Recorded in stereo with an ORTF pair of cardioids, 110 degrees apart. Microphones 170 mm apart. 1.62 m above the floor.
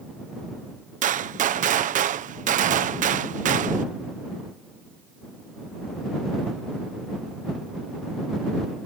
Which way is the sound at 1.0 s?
50° right.